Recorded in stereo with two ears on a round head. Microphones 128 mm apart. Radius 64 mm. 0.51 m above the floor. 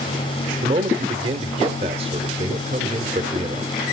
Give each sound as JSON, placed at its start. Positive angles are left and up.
{"t": 0.6, "sound": "a man speaking", "side_deg": -40, "distance_m": 1.2}